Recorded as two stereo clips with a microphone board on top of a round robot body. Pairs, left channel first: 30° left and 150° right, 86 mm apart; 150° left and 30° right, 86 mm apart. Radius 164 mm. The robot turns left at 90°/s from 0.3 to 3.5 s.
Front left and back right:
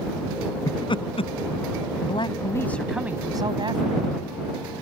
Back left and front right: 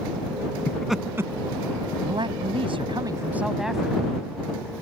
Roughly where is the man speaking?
Ahead.